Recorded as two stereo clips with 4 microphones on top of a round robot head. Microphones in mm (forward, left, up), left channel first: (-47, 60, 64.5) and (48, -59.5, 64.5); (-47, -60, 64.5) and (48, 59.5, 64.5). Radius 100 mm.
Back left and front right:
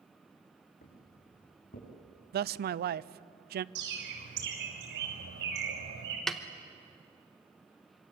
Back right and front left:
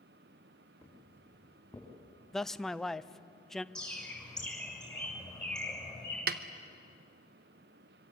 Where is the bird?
45° right, 6.5 m.